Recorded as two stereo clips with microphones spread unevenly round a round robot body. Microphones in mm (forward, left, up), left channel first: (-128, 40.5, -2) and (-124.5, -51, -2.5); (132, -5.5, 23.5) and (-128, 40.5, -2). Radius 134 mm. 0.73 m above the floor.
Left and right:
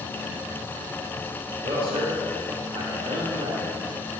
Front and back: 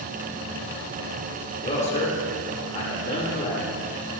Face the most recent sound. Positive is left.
turn(degrees=-80)